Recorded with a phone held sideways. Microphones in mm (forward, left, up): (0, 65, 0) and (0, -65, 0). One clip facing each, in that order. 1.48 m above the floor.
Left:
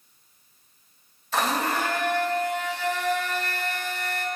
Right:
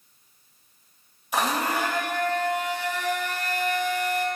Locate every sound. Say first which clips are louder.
1.3 s a blender: even; 15° right (ahead or behind), 1.1 m